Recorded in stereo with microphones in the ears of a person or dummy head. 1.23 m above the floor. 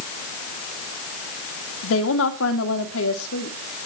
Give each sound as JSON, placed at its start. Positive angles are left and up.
{"t": 1.8, "sound": "a woman speaking", "side_deg": 75, "distance_m": 2.5}